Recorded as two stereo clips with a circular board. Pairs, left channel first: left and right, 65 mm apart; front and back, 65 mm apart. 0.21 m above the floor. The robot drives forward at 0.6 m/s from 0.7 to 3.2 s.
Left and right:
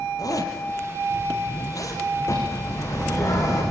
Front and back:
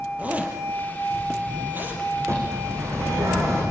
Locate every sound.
0.2 s a zipper: 115° left, 5 m; by 2.0 s 120° left, 5.5 m
2.3 s a bird: 135° left, 9.5 m